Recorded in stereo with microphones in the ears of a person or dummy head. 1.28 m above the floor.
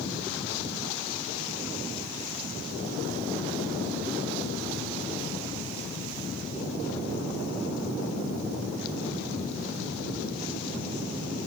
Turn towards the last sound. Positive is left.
No sound to turn to.